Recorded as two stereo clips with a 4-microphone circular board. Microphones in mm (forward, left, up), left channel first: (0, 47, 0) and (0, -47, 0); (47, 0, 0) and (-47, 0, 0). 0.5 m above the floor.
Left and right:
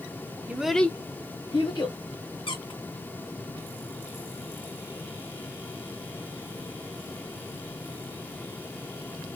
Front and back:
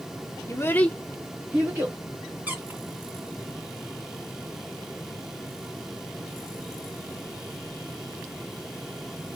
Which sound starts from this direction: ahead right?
A child speaking, at 0.5 s.